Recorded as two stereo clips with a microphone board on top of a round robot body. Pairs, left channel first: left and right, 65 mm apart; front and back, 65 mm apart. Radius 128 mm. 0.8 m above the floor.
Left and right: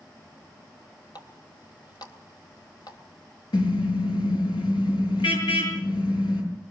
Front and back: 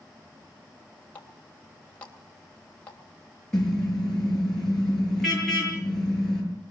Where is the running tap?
70° left, 3 m.